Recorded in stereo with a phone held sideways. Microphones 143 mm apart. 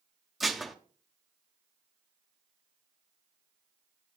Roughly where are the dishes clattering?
Centre.